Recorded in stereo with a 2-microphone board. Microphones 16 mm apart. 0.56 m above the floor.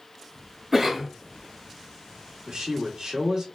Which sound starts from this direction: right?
A man speaking, at 2.5 s.